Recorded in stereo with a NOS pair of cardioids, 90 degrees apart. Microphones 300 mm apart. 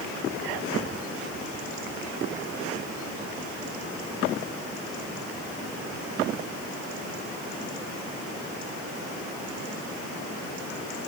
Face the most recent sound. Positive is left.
No sound to turn to.